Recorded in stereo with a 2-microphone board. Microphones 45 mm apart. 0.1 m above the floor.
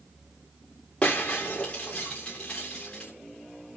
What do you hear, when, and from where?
1.0 s breaking glass: 25° left (ahead or behind), 3.5 m